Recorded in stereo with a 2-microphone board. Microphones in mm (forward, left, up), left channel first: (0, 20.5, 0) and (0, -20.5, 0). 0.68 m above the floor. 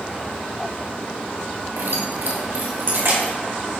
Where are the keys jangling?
85° right, 1.5 m.